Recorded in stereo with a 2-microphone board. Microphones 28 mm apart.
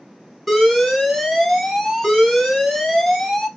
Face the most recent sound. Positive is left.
turn(degrees=0)  # may be behind; listen again after turning